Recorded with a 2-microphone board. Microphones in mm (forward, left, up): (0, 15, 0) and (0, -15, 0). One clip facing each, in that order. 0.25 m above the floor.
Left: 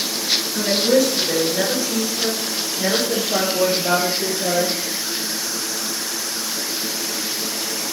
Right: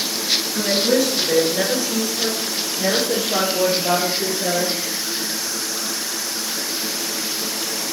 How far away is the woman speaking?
About 4 m.